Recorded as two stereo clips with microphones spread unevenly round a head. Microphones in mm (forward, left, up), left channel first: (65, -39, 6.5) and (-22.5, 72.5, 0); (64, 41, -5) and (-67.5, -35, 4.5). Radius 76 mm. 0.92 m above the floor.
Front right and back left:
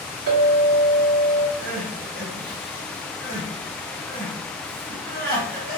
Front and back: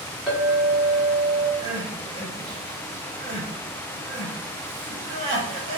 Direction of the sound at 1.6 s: 155° left.